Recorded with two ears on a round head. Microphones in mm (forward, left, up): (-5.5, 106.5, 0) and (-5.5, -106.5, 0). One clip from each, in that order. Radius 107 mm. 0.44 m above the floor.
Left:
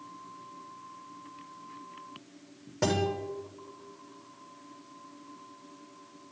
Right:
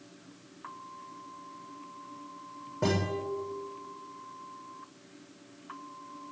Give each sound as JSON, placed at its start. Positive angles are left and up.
{"t": 2.8, "sound": "a guitar", "side_deg": 70, "distance_m": 7.0}